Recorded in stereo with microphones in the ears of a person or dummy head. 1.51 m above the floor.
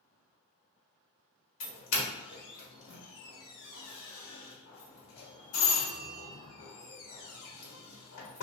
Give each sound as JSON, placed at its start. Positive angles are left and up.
{"t": 1.6, "sound": "a doorbell", "side_deg": 65, "distance_m": 1.1}